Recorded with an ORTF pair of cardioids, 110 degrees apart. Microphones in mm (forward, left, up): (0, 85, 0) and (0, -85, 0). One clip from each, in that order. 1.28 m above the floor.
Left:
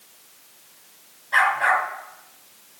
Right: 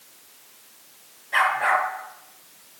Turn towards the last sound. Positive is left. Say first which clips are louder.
# left 2 dB
turn(degrees=30)